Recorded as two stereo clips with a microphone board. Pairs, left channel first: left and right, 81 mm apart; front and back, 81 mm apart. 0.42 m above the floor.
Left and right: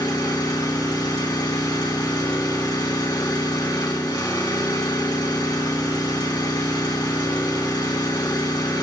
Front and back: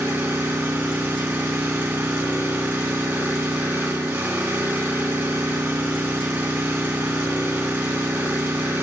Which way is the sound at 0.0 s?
120° left.